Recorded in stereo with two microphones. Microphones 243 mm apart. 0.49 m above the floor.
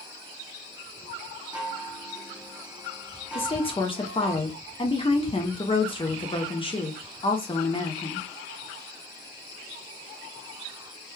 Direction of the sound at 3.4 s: 20° left (ahead or behind).